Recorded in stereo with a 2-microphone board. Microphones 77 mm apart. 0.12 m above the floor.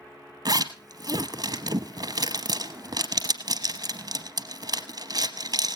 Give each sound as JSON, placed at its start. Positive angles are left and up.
{"t": 0.5, "sound": "a zipper", "side_deg": -55, "distance_m": 0.8}